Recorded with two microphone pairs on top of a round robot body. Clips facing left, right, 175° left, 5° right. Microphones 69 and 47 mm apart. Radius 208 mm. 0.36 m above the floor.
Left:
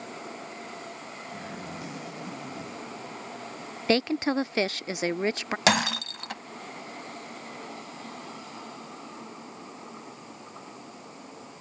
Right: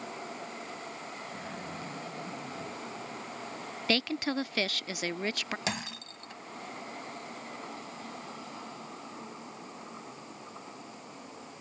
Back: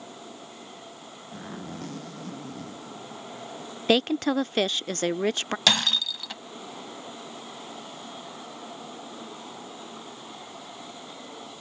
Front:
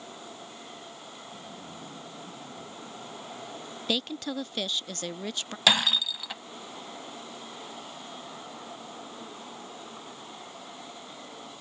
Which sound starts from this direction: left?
Breaking glass, at 5.7 s.